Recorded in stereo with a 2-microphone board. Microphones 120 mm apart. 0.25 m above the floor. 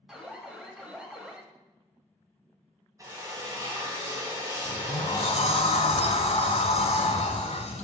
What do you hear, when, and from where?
0.1 s an alarm: 5° right (ahead or behind), 1.0 m
3.0 s a drill: 25° right (ahead or behind), 2.0 m
4.7 s a sliding door: 65° left (ahead or behind), 1.0 m